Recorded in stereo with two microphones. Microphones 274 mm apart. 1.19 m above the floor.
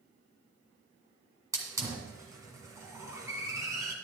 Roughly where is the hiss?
Centre.